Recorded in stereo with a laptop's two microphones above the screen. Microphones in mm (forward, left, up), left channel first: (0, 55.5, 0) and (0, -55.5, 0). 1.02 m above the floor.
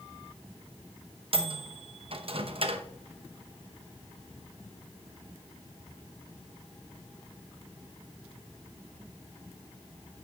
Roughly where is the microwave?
Right.